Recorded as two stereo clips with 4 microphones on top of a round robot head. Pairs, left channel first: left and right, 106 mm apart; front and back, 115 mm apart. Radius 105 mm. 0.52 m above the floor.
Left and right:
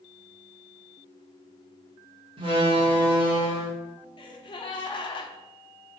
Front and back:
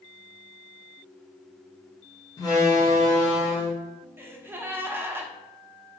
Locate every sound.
2.4 s a door slam: 60° right, 0.7 m
4.2 s a gasp: 110° left, 0.5 m